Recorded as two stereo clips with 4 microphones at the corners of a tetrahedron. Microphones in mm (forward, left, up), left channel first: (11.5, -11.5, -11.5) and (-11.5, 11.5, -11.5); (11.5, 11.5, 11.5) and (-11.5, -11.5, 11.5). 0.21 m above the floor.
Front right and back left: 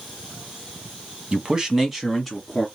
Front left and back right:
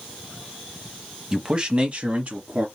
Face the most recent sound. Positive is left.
turn(degrees=-125)